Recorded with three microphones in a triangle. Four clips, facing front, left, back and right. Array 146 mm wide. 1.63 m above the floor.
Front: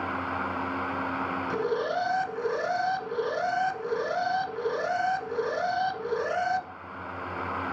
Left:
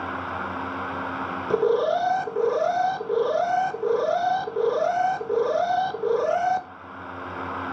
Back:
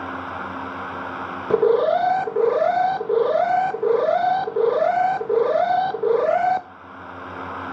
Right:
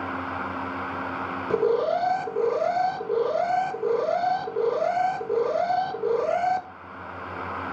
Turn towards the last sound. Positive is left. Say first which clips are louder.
# left 1 dB, back 14 dB
turn(degrees=170)